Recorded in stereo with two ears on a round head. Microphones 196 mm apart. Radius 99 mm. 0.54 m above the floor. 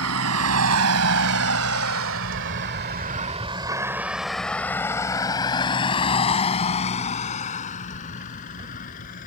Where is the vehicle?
75° right (ahead or behind); by 9.3 s 40° left (ahead or behind).